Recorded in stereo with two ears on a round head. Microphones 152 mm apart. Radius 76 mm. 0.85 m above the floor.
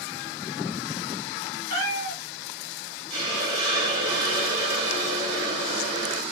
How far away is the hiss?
About 1.0 m.